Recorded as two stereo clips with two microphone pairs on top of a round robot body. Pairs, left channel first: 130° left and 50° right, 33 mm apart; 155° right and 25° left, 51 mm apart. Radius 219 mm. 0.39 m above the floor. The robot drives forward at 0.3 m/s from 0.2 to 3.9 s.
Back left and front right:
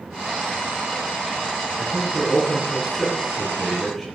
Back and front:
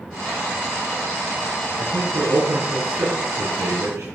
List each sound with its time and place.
1.8 s a man speaking: 45° left, 6 m